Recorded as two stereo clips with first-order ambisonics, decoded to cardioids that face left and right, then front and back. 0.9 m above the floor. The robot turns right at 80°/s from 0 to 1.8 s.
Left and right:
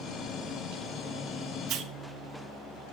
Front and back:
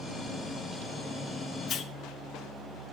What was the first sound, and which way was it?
A hiss, 50° right.